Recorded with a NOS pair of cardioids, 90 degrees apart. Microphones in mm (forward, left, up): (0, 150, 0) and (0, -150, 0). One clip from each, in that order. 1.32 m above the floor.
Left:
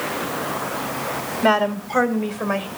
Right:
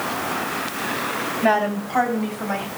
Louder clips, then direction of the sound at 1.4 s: Left 2 dB; 60° left.